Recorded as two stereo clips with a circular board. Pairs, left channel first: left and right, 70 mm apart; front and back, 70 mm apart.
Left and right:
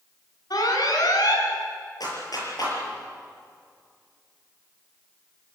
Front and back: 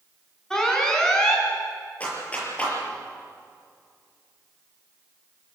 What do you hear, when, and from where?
0.5 s an alarm: 80° left, 4.5 m
2.0 s a clap: 70° left, 6 m